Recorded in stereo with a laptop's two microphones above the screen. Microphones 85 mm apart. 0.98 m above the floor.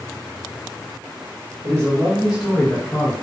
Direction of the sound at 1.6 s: 40° right (ahead or behind).